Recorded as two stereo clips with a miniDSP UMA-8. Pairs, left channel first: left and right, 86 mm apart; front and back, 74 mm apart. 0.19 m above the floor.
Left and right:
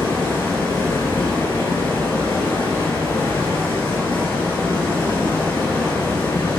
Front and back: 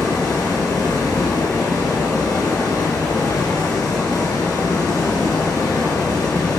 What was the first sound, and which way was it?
Running water, 25° left.